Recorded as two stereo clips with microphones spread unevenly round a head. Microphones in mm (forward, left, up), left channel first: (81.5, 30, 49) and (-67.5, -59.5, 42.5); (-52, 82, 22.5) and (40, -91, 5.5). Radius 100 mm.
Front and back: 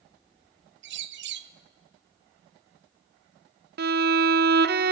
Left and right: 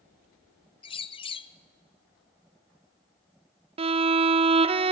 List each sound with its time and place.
0.8 s a bird: 175° right, 1.0 m
3.8 s a violin: 125° right, 0.8 m